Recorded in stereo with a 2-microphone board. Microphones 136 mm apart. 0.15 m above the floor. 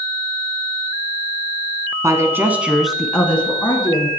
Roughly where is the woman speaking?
Right.